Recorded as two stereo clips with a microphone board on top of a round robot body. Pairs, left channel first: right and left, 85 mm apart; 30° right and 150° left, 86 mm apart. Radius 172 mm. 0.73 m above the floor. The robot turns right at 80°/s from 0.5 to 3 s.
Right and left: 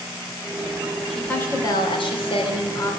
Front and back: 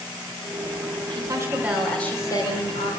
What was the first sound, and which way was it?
A woman speaking, straight behind.